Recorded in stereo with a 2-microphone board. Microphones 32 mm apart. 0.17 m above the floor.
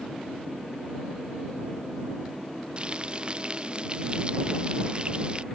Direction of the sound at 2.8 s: 35° right (ahead or behind).